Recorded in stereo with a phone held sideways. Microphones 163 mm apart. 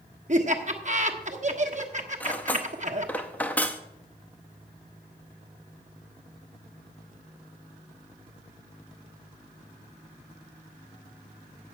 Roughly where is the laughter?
Right.